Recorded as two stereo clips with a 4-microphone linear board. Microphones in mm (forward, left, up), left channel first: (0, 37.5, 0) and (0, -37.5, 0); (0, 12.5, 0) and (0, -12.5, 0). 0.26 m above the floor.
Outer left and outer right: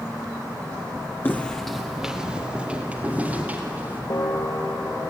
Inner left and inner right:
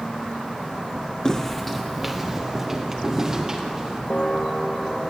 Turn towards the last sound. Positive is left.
turn(degrees=60)  # may be behind; listen again after turning